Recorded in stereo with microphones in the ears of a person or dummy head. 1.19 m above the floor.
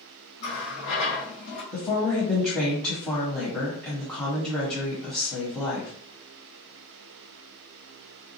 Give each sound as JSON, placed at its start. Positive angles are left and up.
{"t": 0.4, "sound": "a running tap", "side_deg": 80, "distance_m": 1.4}
{"t": 1.7, "sound": "a woman speaking", "side_deg": 15, "distance_m": 1.1}